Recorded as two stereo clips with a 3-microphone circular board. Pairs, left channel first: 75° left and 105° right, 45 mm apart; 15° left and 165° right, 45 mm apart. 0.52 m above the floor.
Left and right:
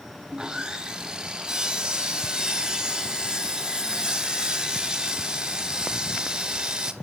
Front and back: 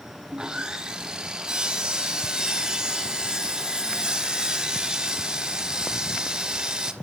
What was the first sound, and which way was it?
Sawing, 135° right.